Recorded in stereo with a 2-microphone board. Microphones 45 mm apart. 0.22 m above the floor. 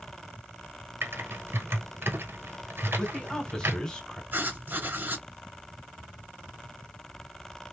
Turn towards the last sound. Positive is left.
turn(degrees=-45)  # may be behind; listen again after turning